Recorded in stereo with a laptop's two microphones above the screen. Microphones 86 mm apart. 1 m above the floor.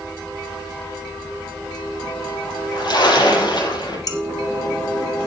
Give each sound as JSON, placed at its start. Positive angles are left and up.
{"t": 2.5, "sound": "a splash", "side_deg": 60, "distance_m": 5.5}
{"t": 4.1, "sound": "dishes clattering", "side_deg": 50, "distance_m": 1.6}